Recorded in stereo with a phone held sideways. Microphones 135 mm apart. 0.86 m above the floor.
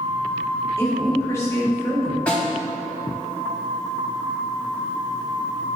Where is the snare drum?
10° left (ahead or behind), 2.5 m.